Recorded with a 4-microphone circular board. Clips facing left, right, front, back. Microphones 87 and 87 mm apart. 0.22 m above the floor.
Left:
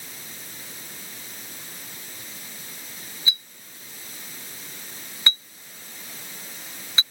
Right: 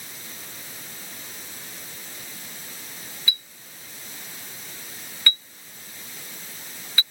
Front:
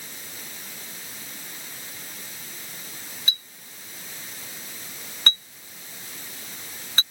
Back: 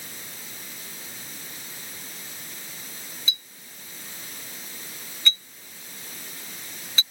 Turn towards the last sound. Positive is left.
turn(degrees=25)